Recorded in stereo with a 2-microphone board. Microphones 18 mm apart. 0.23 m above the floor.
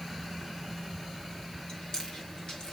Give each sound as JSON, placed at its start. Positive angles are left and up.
{"t": 1.7, "sound": "chewing", "side_deg": 50, "distance_m": 2.5}